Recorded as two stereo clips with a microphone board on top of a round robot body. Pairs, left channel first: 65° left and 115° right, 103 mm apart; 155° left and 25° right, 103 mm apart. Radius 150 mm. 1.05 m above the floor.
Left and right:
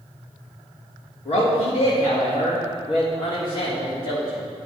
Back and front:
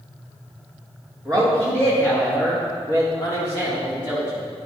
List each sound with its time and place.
1.2 s a man speaking: 75° left, 2 m; by 4.4 s 115° left, 4 m